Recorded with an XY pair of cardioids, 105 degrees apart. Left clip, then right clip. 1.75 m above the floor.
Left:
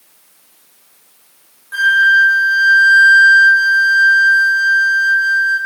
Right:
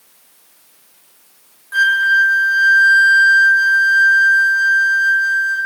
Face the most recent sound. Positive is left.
turn(degrees=0)